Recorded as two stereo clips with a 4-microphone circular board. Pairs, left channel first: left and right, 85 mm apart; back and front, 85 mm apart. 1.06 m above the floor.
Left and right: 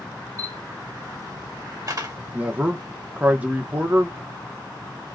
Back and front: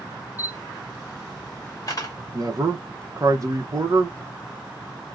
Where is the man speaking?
25° right, 0.9 m.